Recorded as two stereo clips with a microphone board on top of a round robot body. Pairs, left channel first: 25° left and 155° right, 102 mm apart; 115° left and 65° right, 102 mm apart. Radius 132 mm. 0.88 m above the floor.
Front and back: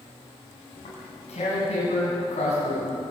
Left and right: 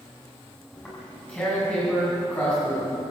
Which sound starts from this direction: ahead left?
Tearing paper, at 0.7 s.